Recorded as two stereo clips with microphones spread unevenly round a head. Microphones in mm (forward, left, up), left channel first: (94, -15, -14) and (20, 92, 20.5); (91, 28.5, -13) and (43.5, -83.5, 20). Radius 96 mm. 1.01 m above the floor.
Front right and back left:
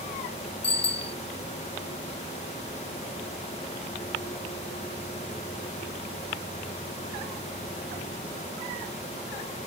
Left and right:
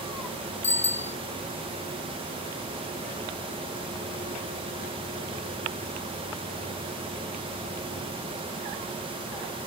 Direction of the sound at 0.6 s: 10° right.